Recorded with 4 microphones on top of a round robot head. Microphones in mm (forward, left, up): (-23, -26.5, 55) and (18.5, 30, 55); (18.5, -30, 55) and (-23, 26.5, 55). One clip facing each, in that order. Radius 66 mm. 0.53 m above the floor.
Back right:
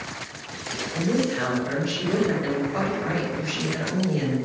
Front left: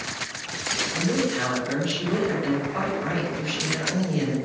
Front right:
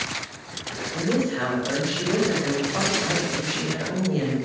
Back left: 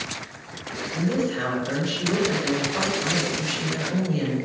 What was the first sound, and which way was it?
A woman speaking, 65° right.